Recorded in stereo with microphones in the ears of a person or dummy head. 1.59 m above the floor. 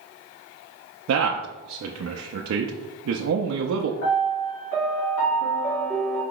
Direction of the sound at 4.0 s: 80° left.